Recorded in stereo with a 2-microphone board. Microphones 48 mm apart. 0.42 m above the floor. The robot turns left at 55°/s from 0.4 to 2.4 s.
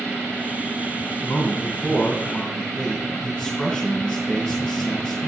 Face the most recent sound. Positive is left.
turn(degrees=10)